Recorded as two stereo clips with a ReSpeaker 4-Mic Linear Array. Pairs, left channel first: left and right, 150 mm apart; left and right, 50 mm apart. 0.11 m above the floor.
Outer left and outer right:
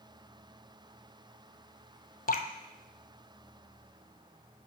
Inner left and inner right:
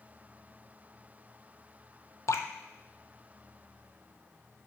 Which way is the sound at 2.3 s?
75° left (ahead or behind).